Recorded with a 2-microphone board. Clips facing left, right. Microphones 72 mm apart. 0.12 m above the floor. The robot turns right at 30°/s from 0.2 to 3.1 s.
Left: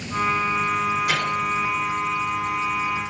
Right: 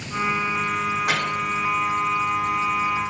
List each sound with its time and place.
1.1 s a microwave: 75° right (ahead or behind), 6 m